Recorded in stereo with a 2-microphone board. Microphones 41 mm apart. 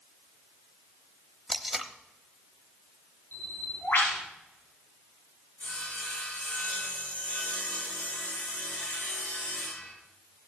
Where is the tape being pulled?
5° right (ahead or behind), 1.1 m.